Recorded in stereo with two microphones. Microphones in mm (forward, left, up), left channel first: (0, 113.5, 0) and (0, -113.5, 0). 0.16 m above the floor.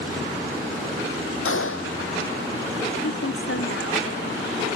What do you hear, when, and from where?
1.4 s a gunshot: 70° left (ahead or behind)
3.0 s a woman speaking: 65° left (ahead or behind)